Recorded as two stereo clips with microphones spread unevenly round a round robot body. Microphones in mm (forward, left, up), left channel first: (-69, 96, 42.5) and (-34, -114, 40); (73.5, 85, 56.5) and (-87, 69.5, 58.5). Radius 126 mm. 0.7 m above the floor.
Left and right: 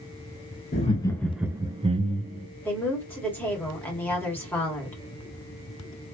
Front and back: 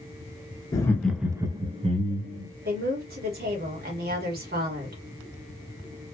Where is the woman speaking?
Straight behind, 2.0 m.